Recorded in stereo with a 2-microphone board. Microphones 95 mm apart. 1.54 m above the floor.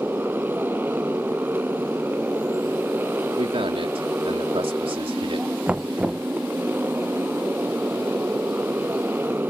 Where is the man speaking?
75° right (ahead or behind).